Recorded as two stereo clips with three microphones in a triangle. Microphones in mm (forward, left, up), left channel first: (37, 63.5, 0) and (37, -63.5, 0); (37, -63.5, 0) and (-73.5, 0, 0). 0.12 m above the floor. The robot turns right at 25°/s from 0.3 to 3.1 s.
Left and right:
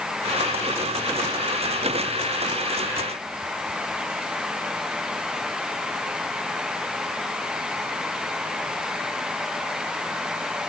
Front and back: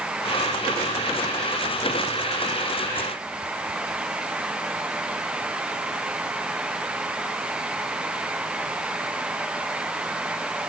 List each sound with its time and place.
Only background noise.